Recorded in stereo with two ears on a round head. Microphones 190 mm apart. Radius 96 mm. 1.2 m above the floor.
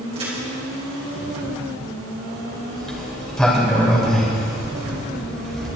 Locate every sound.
0.1 s a crack: 30° right (ahead or behind), 5.5 m
2.8 s a sliding door: centre (ahead or behind), 3 m